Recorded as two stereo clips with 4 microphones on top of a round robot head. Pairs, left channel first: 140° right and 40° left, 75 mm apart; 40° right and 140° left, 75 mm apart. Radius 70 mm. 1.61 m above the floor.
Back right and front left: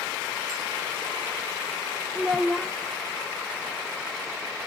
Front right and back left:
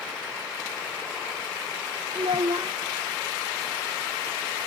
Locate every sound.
2.1 s a child speaking: 130° left, 0.5 m